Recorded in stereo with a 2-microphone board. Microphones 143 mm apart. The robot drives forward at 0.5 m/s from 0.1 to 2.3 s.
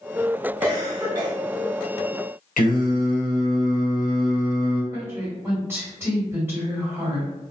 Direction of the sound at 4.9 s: 15° right (ahead or behind).